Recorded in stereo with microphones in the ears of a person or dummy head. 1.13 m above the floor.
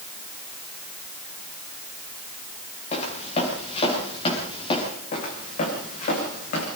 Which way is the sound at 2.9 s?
40° left (ahead or behind).